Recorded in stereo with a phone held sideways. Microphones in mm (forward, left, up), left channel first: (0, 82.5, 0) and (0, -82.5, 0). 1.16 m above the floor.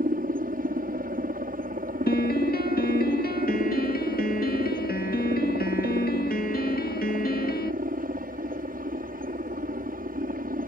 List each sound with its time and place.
0.0 s a helicopter: 60° right (ahead or behind)
2.1 s a piano: 65° left (ahead or behind)